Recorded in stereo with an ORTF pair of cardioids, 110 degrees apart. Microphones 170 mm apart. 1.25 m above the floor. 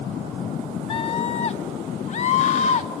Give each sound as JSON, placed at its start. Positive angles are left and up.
{"t": 0.9, "sound": "a scream", "azimuth_deg": 30, "distance_m": 0.7}